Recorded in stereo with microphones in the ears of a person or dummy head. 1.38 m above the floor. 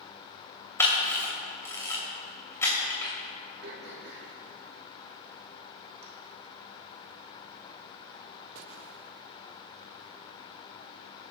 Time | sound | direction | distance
0.8 | a camera shutter | 15° left (ahead or behind) | 2.5 m
3.6 | throat clearing | 60° right (ahead or behind) | 1.6 m